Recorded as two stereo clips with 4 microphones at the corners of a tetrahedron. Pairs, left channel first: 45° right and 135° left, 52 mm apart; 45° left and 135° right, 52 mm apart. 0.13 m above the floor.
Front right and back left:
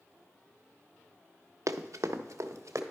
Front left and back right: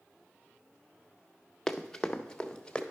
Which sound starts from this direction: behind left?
Running footsteps, at 1.7 s.